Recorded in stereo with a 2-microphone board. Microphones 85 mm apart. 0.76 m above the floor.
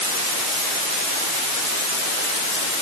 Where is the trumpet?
I don't hear a trumpet.